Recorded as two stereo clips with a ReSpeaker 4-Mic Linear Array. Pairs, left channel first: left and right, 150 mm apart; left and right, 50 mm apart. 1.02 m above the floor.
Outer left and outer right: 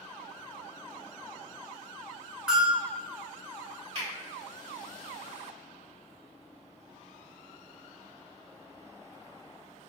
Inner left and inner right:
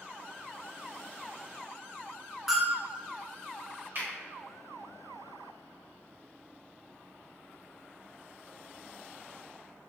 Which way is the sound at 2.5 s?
5° right (ahead or behind).